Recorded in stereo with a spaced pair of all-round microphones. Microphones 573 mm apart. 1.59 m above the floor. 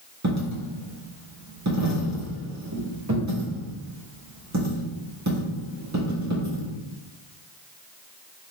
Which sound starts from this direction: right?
A dropped coin, at 0.2 s.